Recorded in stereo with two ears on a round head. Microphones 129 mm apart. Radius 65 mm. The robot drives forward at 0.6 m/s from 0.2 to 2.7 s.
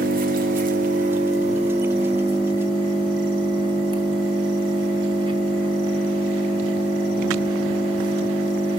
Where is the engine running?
65° right (ahead or behind), 1.3 m; by 8.8 s 35° right (ahead or behind), 2.0 m.